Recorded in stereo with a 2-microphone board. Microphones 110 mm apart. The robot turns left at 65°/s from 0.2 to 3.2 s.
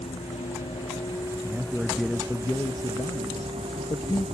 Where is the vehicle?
75° left (ahead or behind); by 4.3 s 80° right.